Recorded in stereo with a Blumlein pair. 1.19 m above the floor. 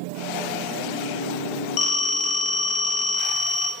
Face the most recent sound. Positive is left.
turn(degrees=35)